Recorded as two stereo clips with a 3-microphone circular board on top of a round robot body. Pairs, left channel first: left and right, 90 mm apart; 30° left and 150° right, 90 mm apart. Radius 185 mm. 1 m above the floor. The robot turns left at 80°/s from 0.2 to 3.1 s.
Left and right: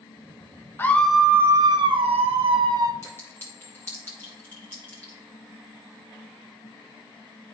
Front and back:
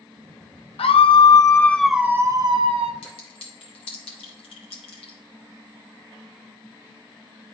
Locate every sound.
0.8 s a scream: 25° left, 0.6 m; by 2.9 s 145° right, 0.6 m
3.0 s a clink: 25° left, 0.8 m; by 5.2 s 20° left, 0.8 m